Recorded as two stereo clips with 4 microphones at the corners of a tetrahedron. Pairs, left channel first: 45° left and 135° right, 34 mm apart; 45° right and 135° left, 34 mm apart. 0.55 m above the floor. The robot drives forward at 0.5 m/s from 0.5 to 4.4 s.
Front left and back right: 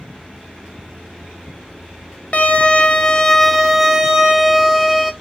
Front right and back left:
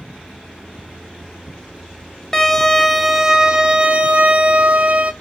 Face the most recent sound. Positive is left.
turn(degrees=160)